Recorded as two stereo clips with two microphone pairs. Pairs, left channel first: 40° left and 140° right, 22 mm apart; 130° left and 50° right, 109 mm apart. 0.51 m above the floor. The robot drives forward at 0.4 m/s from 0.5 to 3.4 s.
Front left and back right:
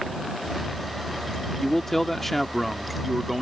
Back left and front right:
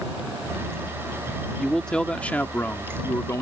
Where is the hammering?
No hammering in this recording.